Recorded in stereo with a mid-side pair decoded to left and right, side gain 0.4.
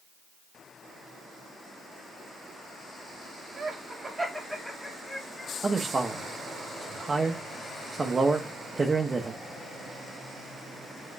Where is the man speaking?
30° right, 0.7 m.